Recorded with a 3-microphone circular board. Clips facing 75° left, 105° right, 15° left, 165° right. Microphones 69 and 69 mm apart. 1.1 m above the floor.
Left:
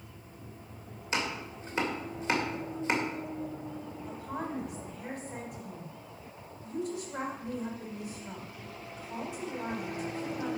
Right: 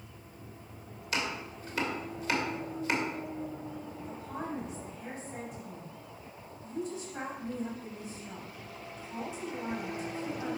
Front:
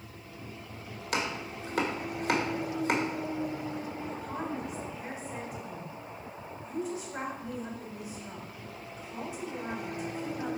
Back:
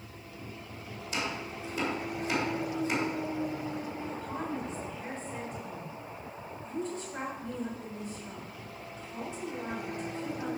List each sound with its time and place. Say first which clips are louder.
1.1 s chopping: left 1 dB, front 2 dB; 15° left, 2 m
4.1 s a woman speaking: left 2 dB, even; 100° left, 3.5 m